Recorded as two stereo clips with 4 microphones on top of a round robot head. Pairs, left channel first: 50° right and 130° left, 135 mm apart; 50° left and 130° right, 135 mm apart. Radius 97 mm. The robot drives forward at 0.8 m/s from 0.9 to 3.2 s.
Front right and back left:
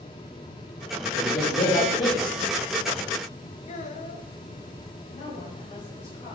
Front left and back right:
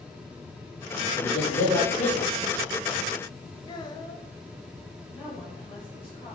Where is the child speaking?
10° right, 1.3 m.